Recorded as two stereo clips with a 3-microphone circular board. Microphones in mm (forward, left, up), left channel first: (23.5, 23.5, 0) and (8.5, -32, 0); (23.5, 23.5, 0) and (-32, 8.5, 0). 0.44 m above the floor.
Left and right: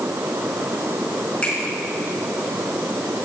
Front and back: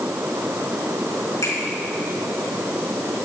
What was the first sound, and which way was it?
A finger snap, 5° left.